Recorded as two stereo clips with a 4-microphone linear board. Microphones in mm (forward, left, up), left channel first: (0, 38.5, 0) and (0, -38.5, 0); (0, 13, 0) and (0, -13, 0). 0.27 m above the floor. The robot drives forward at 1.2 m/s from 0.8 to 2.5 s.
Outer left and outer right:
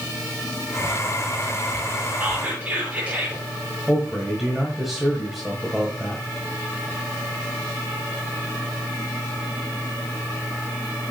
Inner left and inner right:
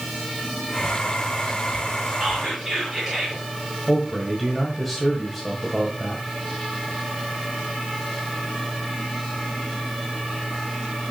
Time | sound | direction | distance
2.2 | whispering | 30° right (ahead or behind) | 4 m
3.9 | a man speaking | centre (ahead or behind) | 1.4 m